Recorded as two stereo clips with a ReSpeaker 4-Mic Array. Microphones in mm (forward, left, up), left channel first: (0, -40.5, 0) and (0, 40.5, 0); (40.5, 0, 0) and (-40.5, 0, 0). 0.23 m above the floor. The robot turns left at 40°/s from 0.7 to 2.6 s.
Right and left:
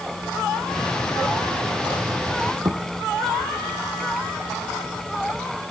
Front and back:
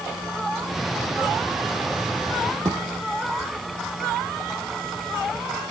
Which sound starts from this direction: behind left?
A thud, at 2.6 s.